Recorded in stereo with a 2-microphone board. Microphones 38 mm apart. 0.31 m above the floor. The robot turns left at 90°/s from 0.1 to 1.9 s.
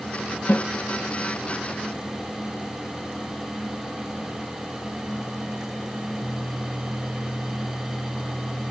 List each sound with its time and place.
0.5 s a snare drum: 55° left (ahead or behind), 1.8 m; by 0.7 s 40° left (ahead or behind), 1.8 m